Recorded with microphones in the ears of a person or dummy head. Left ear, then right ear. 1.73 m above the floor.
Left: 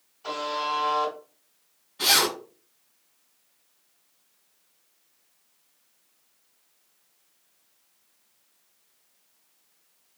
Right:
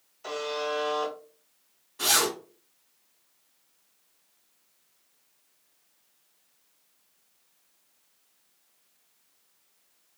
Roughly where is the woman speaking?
I don't hear a woman speaking.